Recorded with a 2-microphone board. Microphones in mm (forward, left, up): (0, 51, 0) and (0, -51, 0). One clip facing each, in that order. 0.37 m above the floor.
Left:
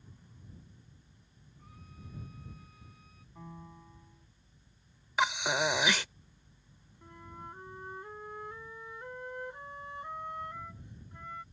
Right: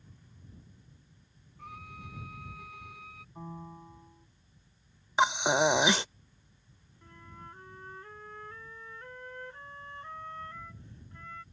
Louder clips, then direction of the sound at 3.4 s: Right 4 dB; 25° right (ahead or behind).